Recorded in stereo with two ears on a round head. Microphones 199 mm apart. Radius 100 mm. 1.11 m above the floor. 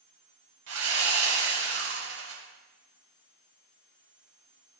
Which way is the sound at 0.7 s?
65° right (ahead or behind).